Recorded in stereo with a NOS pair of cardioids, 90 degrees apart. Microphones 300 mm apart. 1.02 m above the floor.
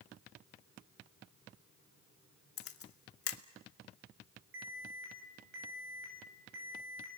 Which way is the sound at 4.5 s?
45° right.